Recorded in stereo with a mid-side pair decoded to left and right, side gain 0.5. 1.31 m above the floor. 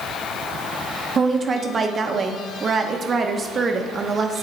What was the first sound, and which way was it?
A woman speaking, 40° right.